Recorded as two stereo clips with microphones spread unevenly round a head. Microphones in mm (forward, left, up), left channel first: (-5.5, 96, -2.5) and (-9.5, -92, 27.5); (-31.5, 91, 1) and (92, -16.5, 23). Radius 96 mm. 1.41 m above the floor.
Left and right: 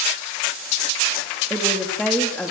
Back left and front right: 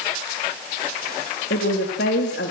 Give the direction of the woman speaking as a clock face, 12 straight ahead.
6 o'clock.